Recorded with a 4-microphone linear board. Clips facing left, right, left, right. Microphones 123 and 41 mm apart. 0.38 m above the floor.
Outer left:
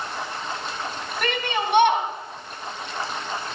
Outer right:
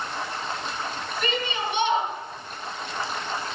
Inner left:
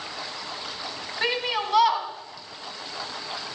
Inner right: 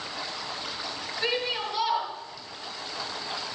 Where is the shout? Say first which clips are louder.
Outer left 3 dB, inner left 3 dB; 70° left (ahead or behind), 3.5 m.